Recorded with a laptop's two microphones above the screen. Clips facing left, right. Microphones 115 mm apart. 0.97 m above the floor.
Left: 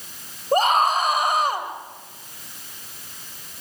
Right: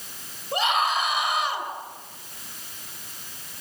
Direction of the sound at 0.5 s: 45° left (ahead or behind).